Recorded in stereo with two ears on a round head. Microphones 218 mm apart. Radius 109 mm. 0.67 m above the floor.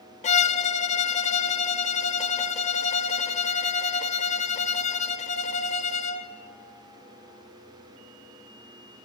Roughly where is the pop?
No pop in this recording.